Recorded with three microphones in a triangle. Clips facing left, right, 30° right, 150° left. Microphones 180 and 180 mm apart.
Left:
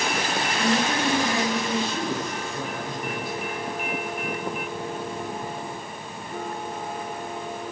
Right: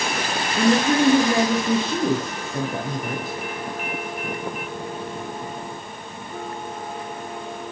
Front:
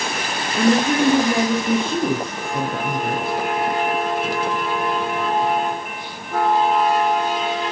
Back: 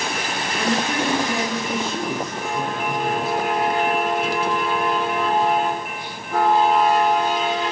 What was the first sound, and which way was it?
A woman speaking, 50° right.